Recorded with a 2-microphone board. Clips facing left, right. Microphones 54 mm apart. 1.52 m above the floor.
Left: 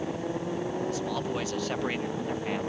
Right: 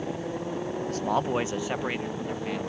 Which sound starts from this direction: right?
A man speaking, at 0.9 s.